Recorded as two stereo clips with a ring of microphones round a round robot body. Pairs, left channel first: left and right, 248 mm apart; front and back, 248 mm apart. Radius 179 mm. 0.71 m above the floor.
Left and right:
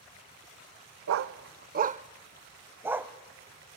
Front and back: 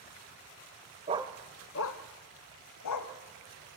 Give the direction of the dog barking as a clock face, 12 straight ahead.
4 o'clock.